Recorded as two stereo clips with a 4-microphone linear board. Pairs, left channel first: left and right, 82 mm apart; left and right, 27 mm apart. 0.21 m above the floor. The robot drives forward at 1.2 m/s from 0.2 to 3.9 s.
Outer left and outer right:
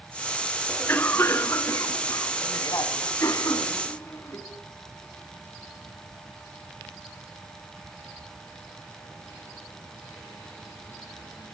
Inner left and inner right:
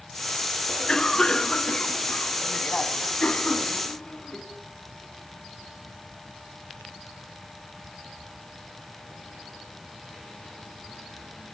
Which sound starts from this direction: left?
A cough, at 0.7 s.